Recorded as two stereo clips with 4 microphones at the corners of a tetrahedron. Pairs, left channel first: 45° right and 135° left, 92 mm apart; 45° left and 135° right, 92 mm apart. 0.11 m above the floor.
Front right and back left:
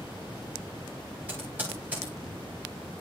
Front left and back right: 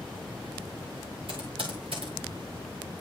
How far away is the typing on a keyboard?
About 7.5 m.